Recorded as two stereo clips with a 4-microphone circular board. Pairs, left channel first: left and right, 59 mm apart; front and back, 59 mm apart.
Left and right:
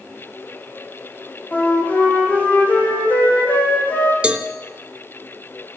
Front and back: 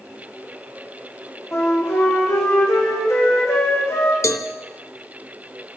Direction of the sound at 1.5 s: 35° left.